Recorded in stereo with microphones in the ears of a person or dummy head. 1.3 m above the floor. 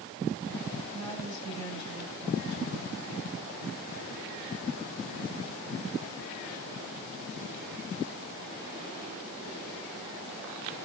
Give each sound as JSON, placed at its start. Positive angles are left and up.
{"t": 0.9, "sound": "a woman speaking", "side_deg": 15, "distance_m": 5.0}